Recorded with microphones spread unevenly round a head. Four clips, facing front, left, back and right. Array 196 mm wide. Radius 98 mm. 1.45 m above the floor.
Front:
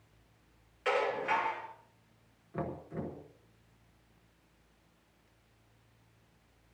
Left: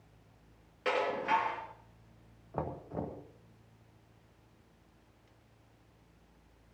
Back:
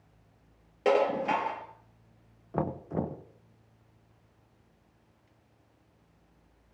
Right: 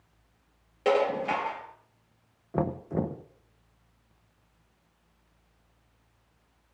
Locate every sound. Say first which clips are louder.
0.8 s dishes clattering: right 6 dB, back 6 dB; 150° right, 1.7 m
2.5 s knocking: right 9 dB, back 7 dB; 105° right, 0.8 m